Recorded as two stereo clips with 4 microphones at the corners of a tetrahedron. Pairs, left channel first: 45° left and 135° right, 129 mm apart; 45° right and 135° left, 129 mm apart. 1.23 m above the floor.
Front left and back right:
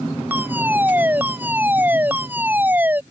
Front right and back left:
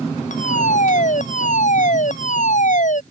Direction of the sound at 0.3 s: 60° right.